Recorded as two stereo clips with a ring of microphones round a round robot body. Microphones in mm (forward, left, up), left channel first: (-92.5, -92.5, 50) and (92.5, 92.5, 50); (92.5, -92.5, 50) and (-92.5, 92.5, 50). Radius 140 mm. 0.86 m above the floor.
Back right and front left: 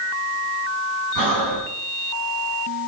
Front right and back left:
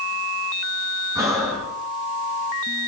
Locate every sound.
1.1 s breathing: 55° left, 3 m